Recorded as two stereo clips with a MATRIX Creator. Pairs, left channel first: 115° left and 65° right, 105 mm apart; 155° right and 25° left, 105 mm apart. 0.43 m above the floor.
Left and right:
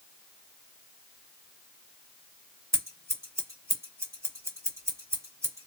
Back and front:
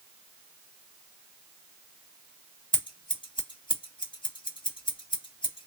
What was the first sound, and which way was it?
Scissors, 130° right.